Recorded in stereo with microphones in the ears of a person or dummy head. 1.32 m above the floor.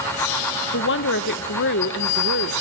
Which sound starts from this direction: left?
A woman speaking, at 0.7 s.